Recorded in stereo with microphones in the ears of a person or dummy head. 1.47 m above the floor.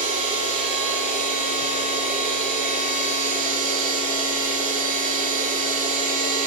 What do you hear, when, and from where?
0.0 s a machine running: 40° left (ahead or behind), 4.5 m